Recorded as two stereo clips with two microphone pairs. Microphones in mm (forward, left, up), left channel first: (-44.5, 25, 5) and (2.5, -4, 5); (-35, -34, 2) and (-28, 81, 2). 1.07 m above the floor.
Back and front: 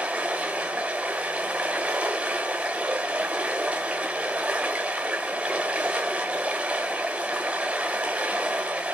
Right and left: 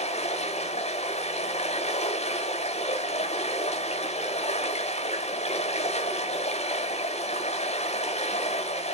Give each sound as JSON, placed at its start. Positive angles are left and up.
{"t": 0.0, "sound": "running water", "azimuth_deg": -100, "distance_m": 2.5}